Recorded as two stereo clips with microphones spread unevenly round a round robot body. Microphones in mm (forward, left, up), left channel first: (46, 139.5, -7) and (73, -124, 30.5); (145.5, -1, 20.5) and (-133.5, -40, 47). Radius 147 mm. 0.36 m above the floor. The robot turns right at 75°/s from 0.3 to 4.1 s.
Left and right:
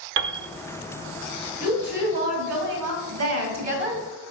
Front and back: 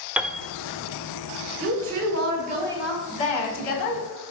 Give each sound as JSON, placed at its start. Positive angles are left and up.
{"t": 0.2, "sound": "a piano", "azimuth_deg": -80, "distance_m": 0.6}
{"t": 1.6, "sound": "a woman speaking", "azimuth_deg": -175, "distance_m": 3.0}